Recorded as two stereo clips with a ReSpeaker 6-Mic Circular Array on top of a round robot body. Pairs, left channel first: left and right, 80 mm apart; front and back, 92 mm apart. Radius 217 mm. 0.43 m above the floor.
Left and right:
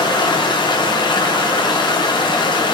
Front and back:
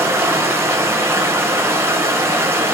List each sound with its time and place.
0.0 s running water: 115° left, 0.9 m